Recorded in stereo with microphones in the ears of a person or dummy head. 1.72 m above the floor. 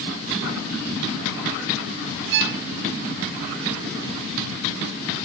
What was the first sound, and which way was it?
A violin, 65° right (ahead or behind).